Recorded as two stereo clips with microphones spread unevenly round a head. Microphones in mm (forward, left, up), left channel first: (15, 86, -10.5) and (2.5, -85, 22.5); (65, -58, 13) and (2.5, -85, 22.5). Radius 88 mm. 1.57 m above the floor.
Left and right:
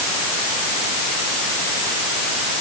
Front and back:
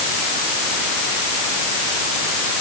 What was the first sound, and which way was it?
Only background noise.